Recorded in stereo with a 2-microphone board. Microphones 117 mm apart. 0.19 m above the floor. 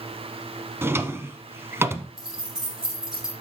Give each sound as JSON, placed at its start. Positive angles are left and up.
{"t": 0.8, "sound": "a drawer", "side_deg": -20, "distance_m": 1.0}
{"t": 2.2, "sound": "keys jangling", "side_deg": -5, "distance_m": 5.0}